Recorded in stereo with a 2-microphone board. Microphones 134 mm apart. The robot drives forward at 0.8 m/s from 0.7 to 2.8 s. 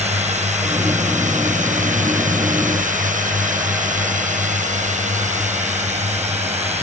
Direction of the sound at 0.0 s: 60° right (ahead or behind).